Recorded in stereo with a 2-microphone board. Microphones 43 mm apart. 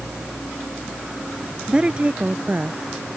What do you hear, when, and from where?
1.7 s a woman speaking: 25° right (ahead or behind); by 2.8 s 45° right (ahead or behind)